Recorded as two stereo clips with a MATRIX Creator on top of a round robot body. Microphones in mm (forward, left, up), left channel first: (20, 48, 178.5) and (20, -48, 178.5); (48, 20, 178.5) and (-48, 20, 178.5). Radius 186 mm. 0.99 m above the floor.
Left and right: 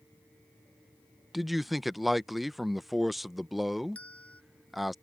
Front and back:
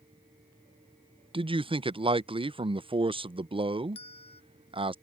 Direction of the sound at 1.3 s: Straight behind.